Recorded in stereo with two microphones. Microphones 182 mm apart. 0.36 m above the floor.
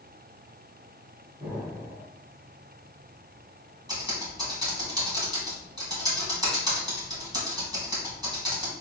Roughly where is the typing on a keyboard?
Right.